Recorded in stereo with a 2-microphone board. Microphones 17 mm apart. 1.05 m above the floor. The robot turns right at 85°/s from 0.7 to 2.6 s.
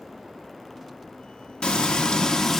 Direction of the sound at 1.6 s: 75° left.